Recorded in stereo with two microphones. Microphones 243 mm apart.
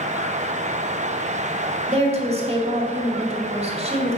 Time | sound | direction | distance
1.9 | a woman speaking | 25° right (ahead or behind) | 1.5 m